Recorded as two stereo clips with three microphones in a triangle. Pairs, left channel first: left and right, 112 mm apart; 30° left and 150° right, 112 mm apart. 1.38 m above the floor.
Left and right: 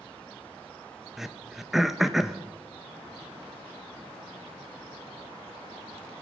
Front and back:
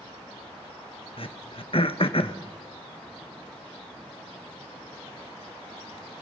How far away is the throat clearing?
About 1.0 m.